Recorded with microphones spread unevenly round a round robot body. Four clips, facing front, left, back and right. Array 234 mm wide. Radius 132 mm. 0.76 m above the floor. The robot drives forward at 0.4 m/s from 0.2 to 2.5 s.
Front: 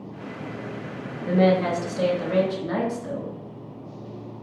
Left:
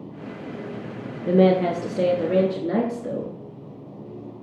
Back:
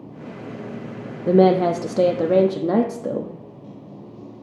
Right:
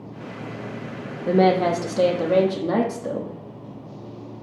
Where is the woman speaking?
170° right, 0.7 m; by 3.3 s 175° right, 1.1 m.